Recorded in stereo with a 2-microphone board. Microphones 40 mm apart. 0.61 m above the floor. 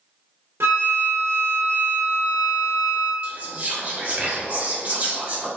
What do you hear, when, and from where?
0.6 s a flute: 80° right, 1.0 m
3.2 s whispering: 35° right (ahead or behind), 1.1 m